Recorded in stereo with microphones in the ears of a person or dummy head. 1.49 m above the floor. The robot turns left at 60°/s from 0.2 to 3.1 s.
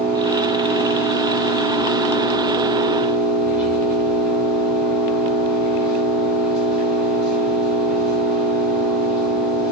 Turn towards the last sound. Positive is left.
turn(degrees=0)